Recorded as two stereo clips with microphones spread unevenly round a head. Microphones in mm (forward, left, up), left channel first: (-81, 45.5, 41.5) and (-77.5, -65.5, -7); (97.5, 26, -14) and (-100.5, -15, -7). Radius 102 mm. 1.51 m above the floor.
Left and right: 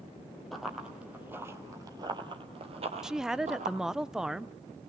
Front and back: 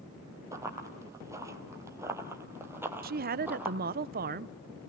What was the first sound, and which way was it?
Running footsteps, 135° left.